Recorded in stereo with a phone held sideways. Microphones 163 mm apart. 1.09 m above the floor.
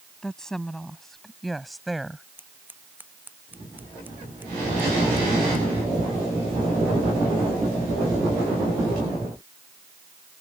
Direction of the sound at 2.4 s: 10° right (ahead or behind).